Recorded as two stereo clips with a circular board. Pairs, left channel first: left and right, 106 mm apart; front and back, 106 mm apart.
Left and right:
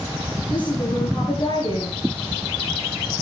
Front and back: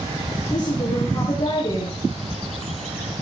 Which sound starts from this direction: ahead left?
A woman speaking, at 0.5 s.